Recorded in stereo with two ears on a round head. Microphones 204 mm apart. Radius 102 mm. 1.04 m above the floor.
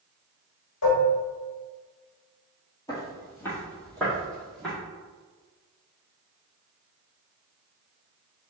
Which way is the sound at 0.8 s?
70° left (ahead or behind).